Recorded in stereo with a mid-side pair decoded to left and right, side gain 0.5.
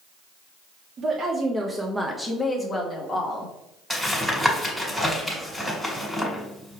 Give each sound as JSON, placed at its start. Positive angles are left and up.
{"t": 1.0, "sound": "a woman speaking", "azimuth_deg": -50, "distance_m": 0.8}
{"t": 3.9, "sound": "tapping", "azimuth_deg": 0, "distance_m": 1.7}